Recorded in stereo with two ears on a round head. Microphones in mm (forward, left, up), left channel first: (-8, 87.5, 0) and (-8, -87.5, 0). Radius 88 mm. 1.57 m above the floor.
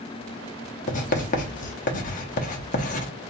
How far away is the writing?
About 0.8 m.